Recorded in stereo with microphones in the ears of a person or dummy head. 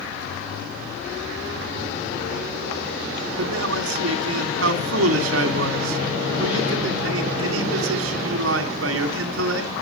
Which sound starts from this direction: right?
A man speaking, at 3.4 s.